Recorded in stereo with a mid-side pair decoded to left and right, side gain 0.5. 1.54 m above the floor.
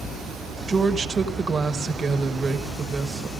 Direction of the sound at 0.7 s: 30° right.